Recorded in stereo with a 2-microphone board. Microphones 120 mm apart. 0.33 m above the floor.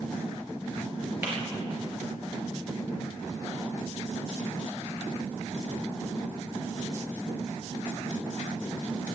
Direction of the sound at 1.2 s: 15° right (ahead or behind).